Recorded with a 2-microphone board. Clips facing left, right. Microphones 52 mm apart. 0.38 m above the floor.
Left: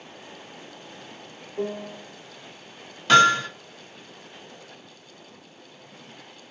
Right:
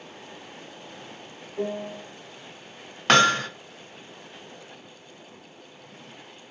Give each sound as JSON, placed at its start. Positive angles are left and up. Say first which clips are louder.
{"t": 1.6, "sound": "a piano", "louder": "even", "side_deg": 10, "distance_m": 0.7}
{"t": 3.1, "sound": "hammering", "louder": "left 2 dB", "side_deg": -55, "distance_m": 0.7}